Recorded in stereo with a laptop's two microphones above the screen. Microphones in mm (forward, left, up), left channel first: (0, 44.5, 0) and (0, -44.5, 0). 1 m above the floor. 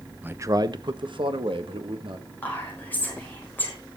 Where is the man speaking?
20° right (ahead or behind), 0.7 m; by 2.3 s 75° right (ahead or behind), 2.5 m.